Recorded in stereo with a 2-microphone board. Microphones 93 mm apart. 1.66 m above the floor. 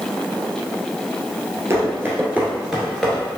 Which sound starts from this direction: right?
Running footsteps, at 1.7 s.